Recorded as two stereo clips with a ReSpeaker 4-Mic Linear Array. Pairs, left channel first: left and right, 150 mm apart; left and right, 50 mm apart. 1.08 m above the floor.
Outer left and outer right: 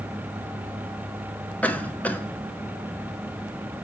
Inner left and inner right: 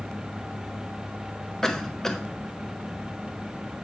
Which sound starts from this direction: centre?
A cough, at 1.6 s.